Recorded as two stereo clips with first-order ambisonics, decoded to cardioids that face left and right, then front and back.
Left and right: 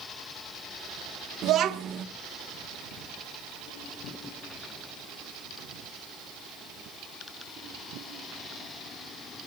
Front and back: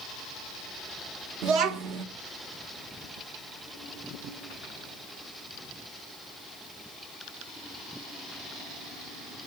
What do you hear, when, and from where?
1.4 s a child speaking: 145° right, 1.4 m